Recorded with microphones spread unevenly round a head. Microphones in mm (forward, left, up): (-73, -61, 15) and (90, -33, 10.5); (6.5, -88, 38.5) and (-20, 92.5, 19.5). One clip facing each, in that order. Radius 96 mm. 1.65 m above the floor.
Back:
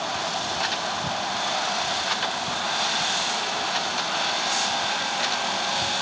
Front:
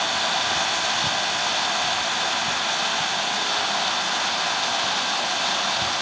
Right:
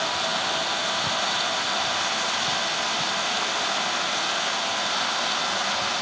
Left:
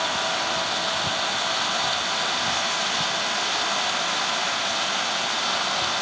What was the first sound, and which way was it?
Only background noise.